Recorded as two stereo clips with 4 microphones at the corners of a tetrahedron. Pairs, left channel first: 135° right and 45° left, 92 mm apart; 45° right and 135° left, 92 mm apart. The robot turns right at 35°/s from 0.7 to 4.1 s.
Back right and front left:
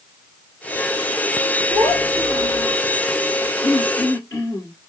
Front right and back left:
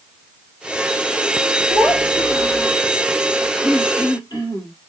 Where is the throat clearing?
95° right, 2 m; by 4.7 s 80° right, 2 m.